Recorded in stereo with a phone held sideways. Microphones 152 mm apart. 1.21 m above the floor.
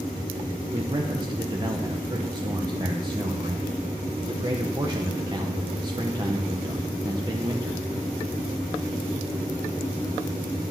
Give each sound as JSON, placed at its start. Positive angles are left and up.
{"t": 0.7, "sound": "a man speaking", "side_deg": -25, "distance_m": 0.9}